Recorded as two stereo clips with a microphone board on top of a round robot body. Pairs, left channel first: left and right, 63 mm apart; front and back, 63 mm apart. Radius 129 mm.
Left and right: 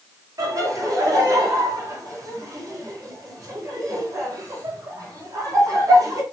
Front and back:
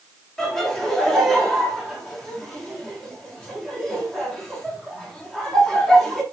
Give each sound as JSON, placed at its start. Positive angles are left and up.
{"t": 0.4, "sound": "laughter", "azimuth_deg": -75, "distance_m": 3.0}